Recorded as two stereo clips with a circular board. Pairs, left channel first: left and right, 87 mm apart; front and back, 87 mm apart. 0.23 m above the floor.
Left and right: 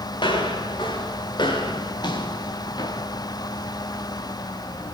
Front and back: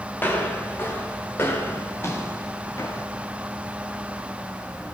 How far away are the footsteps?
About 4 m.